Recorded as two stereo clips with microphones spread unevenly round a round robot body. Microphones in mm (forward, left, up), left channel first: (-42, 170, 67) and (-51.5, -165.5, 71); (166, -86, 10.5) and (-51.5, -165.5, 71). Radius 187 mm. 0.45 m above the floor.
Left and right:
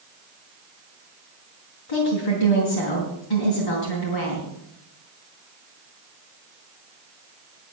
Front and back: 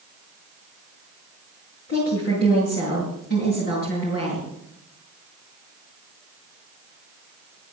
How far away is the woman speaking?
About 5 m.